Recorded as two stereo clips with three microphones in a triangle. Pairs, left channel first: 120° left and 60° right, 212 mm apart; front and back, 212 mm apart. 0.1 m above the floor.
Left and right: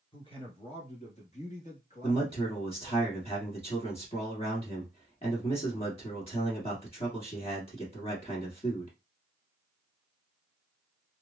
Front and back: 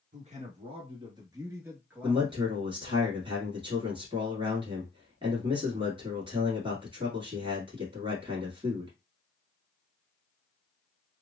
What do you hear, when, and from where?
0.1 s a man speaking: 170° left, 1.4 m; by 3.0 s 80° left, 1.7 m
2.0 s a man speaking: 140° left, 1.4 m